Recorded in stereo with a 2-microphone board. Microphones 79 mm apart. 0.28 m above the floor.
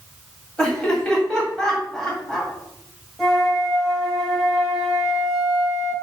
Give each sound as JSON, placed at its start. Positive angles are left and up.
{"t": 0.6, "sound": "laughter", "side_deg": 10, "distance_m": 1.7}
{"t": 3.2, "sound": "a flute", "side_deg": 5, "distance_m": 1.2}